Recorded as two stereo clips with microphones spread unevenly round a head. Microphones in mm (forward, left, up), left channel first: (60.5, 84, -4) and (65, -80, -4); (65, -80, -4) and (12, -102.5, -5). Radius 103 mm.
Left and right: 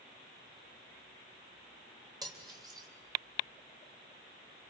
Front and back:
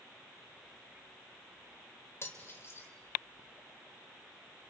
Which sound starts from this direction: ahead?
Cutlery clinking, at 2.2 s.